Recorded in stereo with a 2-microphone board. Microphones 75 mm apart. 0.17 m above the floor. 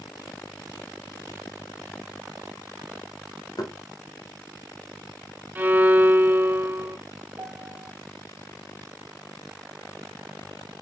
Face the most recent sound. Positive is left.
turn(degrees=-40)  # may be behind; listen again after turning